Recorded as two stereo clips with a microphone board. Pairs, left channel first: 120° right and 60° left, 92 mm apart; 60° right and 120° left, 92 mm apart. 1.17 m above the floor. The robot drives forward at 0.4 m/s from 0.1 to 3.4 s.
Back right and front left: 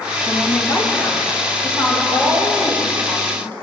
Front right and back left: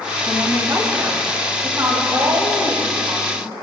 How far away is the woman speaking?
About 1.3 m.